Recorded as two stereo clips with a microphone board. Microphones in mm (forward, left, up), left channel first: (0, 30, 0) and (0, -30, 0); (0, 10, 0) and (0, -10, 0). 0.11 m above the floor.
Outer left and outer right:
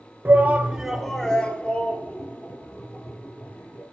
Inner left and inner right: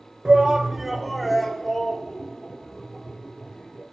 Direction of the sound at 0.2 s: 35° right (ahead or behind).